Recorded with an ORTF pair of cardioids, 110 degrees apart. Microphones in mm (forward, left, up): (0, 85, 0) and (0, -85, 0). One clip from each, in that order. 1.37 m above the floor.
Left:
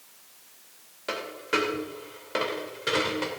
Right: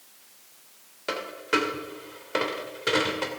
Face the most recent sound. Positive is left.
turn(degrees=-15)